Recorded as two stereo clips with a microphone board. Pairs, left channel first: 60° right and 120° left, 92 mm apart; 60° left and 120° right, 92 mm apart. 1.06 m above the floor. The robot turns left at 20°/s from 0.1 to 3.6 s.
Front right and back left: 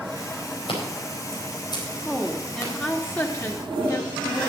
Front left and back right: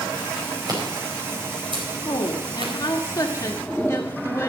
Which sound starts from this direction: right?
Scissors, at 0.7 s.